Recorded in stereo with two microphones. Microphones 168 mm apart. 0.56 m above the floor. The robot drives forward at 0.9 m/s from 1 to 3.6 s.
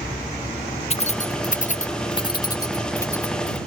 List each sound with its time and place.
0.9 s keys jangling: 35° left (ahead or behind); by 3.6 s 15° left (ahead or behind)